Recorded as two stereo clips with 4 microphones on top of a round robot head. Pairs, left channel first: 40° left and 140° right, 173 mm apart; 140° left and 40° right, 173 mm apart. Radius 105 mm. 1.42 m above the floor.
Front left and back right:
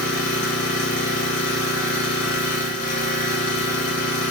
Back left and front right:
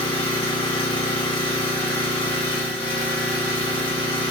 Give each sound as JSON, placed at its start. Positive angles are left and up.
{"t": 0.0, "sound": "an engine running", "azimuth_deg": 80, "distance_m": 1.0}